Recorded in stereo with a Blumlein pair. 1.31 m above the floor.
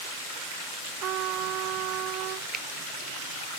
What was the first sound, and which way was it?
A trumpet, 35° right.